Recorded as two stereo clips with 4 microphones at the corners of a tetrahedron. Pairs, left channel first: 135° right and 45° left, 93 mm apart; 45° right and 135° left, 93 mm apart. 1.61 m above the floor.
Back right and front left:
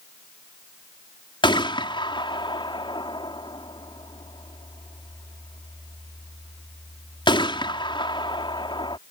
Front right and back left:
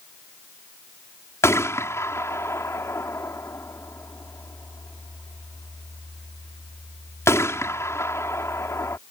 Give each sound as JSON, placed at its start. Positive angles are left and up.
{"t": 1.4, "sound": "a gunshot", "azimuth_deg": -105}